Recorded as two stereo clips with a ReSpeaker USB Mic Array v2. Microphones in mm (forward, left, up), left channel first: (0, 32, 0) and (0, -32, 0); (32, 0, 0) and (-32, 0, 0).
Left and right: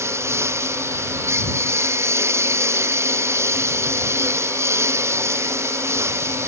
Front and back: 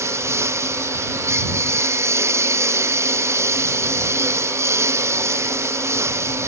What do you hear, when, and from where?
0.0 s a lawn mower: 135° right